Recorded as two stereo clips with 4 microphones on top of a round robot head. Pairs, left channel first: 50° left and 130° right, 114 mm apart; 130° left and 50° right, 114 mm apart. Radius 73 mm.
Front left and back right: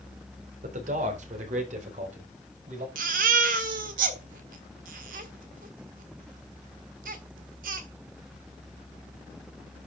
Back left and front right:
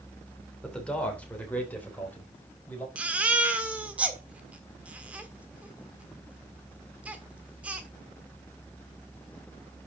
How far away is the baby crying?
About 1.6 m.